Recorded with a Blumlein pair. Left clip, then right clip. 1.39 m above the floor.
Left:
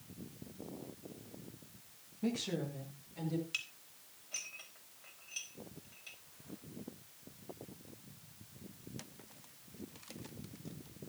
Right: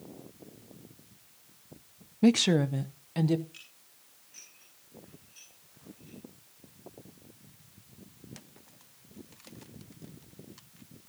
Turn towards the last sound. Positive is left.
turn(degrees=35)